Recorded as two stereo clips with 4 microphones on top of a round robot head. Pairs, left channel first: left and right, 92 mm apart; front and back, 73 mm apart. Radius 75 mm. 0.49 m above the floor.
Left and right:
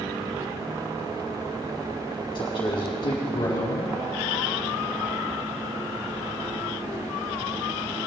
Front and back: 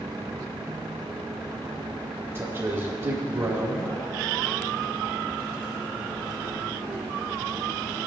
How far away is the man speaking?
About 4 m.